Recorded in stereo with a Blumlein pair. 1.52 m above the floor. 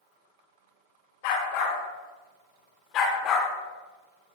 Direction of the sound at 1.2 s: 50° left.